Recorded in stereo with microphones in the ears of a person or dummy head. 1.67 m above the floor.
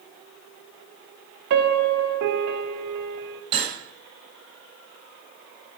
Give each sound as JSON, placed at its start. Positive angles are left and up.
{"t": 1.5, "sound": "a piano", "side_deg": -60, "distance_m": 0.9}
{"t": 3.5, "sound": "cutlery clinking", "side_deg": -30, "distance_m": 4.0}